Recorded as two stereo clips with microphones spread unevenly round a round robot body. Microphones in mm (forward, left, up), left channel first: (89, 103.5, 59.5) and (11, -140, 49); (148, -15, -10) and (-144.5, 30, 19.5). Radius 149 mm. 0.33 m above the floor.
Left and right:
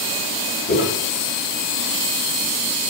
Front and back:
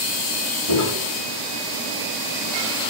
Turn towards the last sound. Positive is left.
turn(degrees=25)